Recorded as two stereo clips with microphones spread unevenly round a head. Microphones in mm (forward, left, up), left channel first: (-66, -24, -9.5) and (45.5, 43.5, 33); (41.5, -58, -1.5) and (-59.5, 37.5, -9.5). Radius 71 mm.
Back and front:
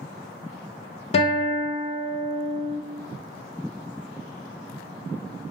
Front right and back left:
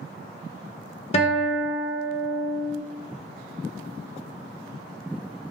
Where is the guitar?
95° right, 0.9 m.